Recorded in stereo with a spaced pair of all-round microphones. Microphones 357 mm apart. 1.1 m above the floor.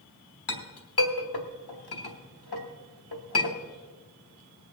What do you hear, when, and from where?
0.5 s a clink: 85° left, 1.3 m